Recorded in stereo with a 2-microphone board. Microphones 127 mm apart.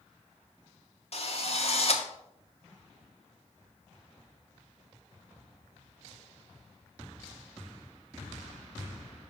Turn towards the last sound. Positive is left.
turn(degrees=50)  # may be behind; listen again after turning